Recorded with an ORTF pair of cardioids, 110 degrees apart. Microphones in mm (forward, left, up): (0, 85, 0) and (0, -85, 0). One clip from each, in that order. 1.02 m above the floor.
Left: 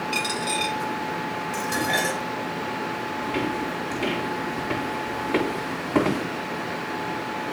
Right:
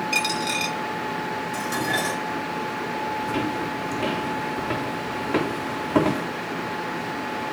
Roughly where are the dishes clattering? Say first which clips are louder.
Left 2 dB; ahead left.